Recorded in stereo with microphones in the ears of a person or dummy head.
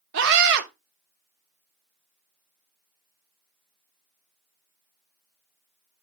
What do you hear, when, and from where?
0.1 s a scream: 70° right (ahead or behind), 2 m